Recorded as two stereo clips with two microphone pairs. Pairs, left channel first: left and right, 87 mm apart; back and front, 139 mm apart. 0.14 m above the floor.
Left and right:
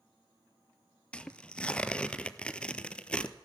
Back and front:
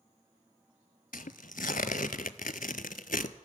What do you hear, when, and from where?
1.1 s tearing paper: 170° left, 0.6 m